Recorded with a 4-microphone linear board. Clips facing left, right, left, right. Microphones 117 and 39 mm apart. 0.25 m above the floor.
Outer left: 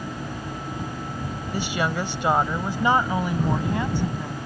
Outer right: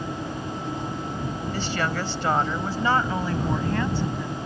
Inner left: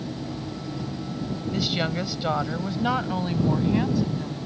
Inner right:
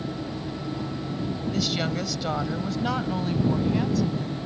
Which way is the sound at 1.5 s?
15° left (ahead or behind).